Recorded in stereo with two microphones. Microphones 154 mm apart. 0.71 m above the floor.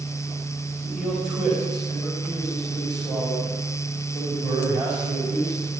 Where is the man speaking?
5° right (ahead or behind), 4 m.